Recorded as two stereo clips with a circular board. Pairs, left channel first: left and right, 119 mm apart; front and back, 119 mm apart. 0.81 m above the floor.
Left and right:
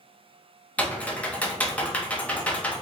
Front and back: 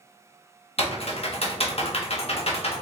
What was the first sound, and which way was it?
Typing on a keyboard, 15° left.